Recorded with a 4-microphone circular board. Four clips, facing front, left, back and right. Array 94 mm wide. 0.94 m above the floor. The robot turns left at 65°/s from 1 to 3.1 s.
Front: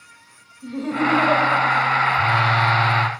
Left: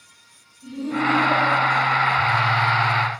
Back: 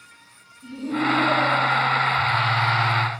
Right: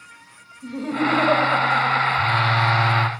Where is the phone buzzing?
15° right, 1.3 m; by 3.1 s 75° right, 1.3 m.